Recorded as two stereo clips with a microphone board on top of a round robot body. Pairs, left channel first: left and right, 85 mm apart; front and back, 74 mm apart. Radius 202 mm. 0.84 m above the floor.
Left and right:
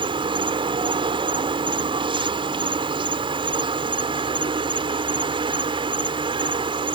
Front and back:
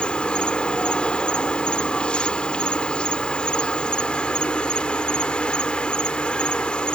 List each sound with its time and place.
0.0 s an insect: 75° right